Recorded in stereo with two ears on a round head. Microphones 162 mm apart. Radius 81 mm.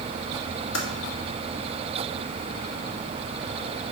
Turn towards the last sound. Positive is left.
turn(degrees=70)  # may be behind; listen again after turning